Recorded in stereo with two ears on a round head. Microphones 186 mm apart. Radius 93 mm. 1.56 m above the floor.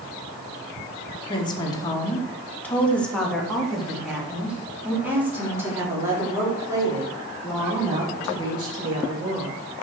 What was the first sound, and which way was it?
A woman speaking, 25° left (ahead or behind).